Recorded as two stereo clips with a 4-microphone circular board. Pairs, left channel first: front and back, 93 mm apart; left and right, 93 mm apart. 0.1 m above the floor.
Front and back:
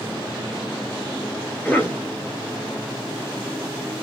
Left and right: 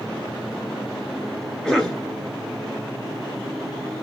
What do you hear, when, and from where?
1.6 s a cough: 20° left, 1.3 m